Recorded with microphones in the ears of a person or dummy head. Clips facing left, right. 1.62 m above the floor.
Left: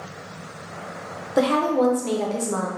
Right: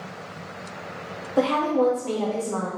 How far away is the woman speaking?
About 0.8 m.